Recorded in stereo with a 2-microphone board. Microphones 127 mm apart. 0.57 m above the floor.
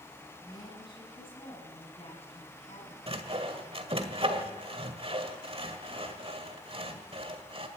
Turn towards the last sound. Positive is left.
turn(degrees=-45)  # may be behind; listen again after turning